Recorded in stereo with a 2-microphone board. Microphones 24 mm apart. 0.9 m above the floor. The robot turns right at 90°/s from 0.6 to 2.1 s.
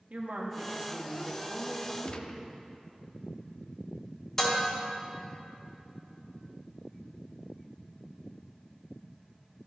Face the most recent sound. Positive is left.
turn(degrees=20)  # may be behind; listen again after turning